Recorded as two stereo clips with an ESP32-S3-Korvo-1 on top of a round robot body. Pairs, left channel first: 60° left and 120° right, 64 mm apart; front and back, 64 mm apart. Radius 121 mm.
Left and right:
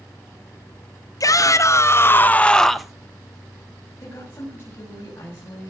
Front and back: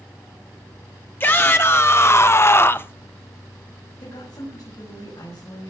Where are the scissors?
I don't hear scissors.